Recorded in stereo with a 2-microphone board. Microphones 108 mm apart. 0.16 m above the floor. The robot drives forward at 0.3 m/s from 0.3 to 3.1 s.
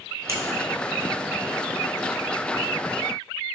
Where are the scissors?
30° right (ahead or behind), 0.6 m.